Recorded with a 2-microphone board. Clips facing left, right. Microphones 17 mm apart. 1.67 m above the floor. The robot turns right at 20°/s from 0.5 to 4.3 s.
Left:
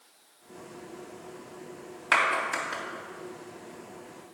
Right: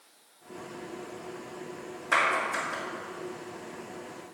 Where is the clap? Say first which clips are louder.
Left 1 dB; 70° left (ahead or behind), 3 m; by 2.8 s 80° left, 3 m.